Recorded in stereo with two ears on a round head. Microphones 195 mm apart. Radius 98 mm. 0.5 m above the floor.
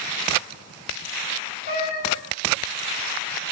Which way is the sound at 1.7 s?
50° left (ahead or behind).